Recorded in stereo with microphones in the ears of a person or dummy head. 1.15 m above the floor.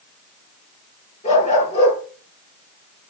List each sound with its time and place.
1.2 s a dog barking: 35° left (ahead or behind), 8 m